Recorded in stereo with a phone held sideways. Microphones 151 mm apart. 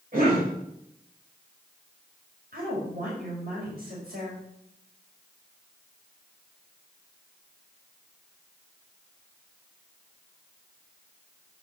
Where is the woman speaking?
75° right (ahead or behind), 5.5 m.